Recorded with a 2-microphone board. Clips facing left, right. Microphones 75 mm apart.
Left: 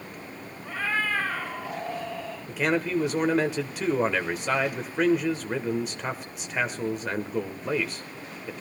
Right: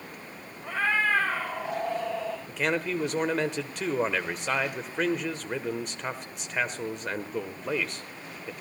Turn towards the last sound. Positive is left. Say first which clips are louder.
# left 4 dB
turn(degrees=0)  # may be behind; listen again after turning